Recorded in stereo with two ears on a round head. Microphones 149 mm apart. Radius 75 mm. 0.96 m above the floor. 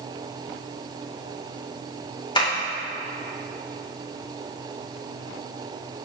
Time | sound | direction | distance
2.4 | tapping | 30° left (ahead or behind) | 2.0 m